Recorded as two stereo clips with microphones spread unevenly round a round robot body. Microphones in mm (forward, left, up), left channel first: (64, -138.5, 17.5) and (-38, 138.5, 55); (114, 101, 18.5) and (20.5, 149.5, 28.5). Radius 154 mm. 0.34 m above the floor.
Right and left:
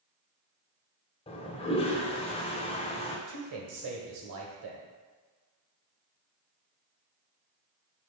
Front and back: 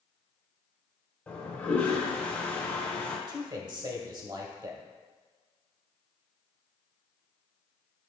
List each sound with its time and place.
1.3 s a toilet flushing: 70° right, 1.0 m
3.3 s a man speaking: 110° left, 1.7 m